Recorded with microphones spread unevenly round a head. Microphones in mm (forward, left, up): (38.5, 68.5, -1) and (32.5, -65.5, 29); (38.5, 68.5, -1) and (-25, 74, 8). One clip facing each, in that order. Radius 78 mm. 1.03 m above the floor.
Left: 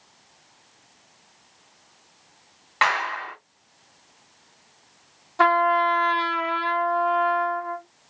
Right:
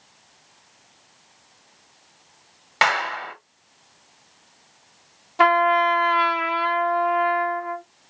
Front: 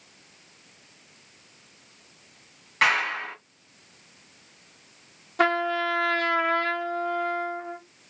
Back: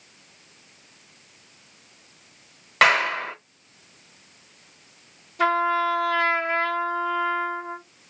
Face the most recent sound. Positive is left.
turn(degrees=-15)